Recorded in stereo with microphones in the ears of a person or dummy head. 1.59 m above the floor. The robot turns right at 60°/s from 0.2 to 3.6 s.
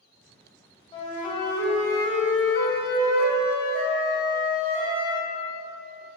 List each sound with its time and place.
0.9 s a flute: 30° left, 0.5 m; by 5.3 s 170° right, 0.5 m